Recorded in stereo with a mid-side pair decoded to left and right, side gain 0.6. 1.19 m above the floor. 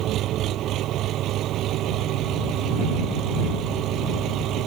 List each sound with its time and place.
0.0 s an engine running: 60° right